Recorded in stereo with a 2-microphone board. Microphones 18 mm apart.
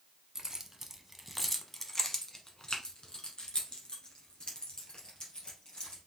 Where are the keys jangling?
30° right (ahead or behind), 0.9 m; by 6.0 s 55° left (ahead or behind), 3 m.